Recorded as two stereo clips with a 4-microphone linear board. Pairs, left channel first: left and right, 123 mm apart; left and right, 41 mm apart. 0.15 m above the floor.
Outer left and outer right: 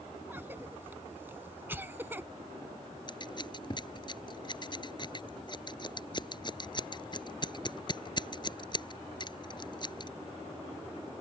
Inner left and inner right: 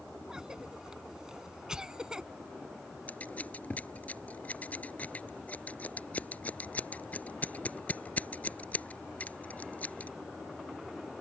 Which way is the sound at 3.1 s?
40° left (ahead or behind).